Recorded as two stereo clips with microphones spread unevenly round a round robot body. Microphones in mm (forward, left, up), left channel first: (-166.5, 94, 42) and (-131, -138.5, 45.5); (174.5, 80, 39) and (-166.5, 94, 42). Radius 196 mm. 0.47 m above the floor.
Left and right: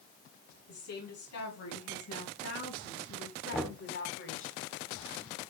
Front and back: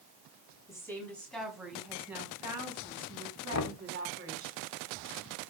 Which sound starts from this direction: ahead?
Knocking, at 3.5 s.